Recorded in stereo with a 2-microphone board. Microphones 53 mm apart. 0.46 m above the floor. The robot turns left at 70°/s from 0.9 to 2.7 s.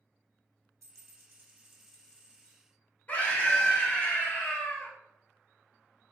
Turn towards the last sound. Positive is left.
turn(degrees=30)  # may be behind; listen again after turning